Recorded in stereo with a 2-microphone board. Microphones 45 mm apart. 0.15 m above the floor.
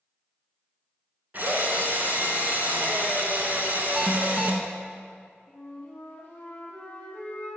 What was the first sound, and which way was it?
A drill, 40° right (ahead or behind).